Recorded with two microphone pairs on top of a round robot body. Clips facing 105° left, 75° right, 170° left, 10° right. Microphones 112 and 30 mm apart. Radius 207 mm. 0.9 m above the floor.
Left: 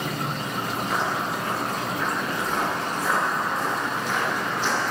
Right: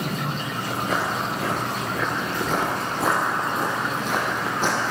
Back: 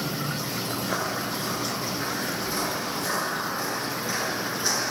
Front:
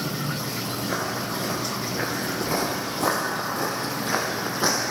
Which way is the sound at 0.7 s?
120° right.